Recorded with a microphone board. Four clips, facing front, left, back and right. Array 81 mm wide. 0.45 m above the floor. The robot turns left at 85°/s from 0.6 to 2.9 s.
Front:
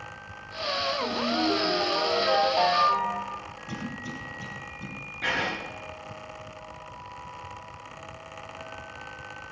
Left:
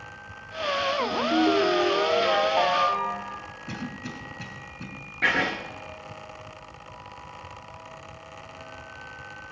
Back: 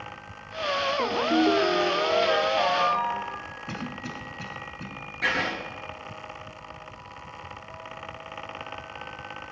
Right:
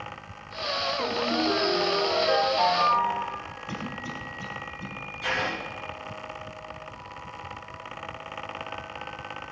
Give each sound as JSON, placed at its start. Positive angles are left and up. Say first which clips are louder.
{"t": 1.0, "sound": "a ringtone", "louder": "left 4 dB, back 6 dB", "azimuth_deg": -160, "distance_m": 5.0}
{"t": 3.7, "sound": "a cough", "louder": "even, even", "azimuth_deg": 135, "distance_m": 3.0}
{"t": 5.2, "sound": "writing", "louder": "left 4 dB, back 2 dB", "azimuth_deg": 105, "distance_m": 2.5}